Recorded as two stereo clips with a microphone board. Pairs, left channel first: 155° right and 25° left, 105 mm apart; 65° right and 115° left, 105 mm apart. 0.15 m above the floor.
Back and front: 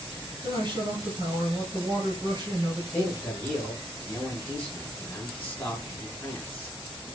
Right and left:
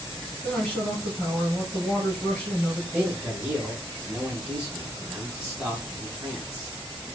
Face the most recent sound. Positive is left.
turn(degrees=155)